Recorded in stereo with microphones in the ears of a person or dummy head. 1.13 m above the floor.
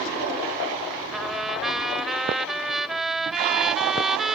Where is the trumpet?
Centre (ahead or behind).